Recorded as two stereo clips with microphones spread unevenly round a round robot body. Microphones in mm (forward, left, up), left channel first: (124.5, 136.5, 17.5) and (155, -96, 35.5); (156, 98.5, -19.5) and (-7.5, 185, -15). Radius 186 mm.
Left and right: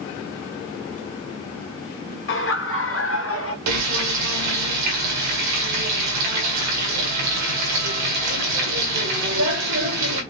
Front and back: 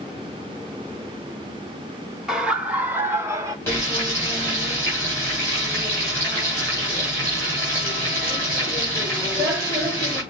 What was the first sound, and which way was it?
Laughter, 65° left.